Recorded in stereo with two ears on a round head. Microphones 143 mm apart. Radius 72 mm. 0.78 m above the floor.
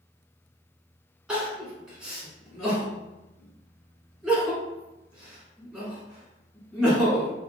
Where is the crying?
5° right (ahead or behind), 1.5 m.